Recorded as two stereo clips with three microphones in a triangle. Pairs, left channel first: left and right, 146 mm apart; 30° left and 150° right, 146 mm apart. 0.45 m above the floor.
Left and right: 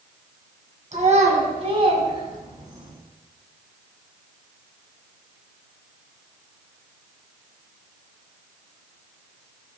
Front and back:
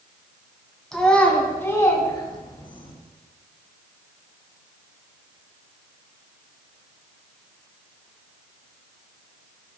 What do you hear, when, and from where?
0.9 s a child speaking: 55° right, 2.5 m; by 2.9 s 20° right, 3 m